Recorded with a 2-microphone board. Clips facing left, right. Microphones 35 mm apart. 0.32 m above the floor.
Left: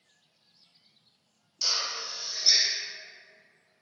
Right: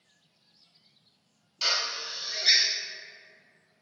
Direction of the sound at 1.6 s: 55° right (ahead or behind).